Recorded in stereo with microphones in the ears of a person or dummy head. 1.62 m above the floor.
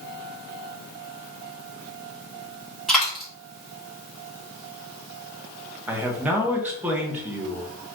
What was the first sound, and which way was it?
A dropped coin, 5° left (ahead or behind).